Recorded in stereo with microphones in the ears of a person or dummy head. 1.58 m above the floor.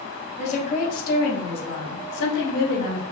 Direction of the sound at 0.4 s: 35° left (ahead or behind).